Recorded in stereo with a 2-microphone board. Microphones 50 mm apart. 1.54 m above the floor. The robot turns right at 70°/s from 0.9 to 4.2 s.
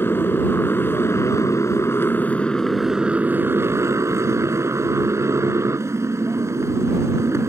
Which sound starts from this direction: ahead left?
A motorcycle, at 0.0 s.